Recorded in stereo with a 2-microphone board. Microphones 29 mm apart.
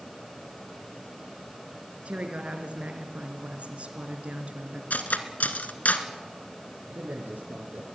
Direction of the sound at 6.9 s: 55° right (ahead or behind).